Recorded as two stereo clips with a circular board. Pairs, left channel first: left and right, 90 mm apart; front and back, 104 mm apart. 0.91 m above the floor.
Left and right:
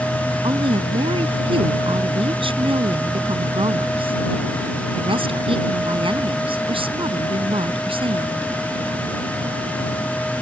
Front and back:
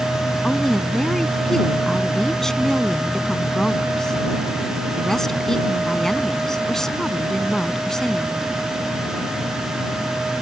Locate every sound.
0.4 s a woman speaking: 85° right